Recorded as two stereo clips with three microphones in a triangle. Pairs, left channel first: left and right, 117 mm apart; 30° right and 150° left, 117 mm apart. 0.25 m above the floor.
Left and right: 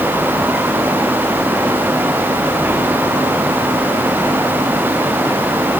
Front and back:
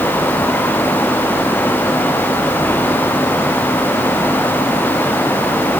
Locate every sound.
Only background noise.